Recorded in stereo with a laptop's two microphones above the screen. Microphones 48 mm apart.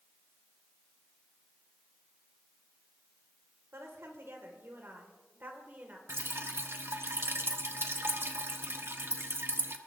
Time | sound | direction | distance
3.7 | a woman speaking | 65° right (ahead or behind) | 3.5 m
6.1 | dripping | 55° right (ahead or behind) | 1.0 m